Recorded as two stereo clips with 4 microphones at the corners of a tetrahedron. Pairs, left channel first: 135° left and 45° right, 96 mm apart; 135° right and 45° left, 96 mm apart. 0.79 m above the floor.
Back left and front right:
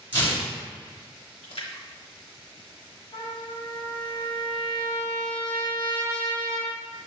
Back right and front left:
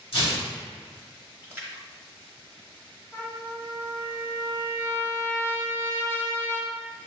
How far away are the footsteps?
I don't hear footsteps.